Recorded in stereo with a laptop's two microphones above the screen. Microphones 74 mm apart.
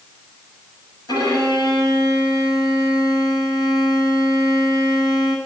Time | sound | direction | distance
1.1 | a violin | 70° left (ahead or behind) | 7 m